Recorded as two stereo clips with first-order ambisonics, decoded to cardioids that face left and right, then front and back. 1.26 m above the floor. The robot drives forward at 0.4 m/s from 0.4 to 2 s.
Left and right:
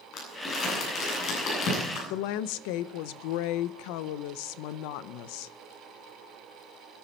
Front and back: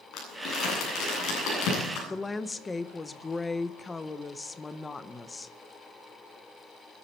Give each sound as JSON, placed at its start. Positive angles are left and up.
{"t": 0.1, "sound": "crumpling", "azimuth_deg": 40, "distance_m": 8.5}
{"t": 2.1, "sound": "a woman speaking", "azimuth_deg": 80, "distance_m": 0.8}